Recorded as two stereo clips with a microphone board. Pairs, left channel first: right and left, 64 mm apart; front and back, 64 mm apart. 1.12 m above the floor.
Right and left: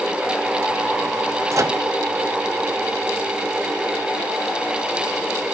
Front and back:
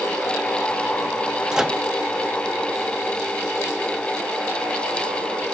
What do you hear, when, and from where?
1.5 s a microwave: 105° left, 0.6 m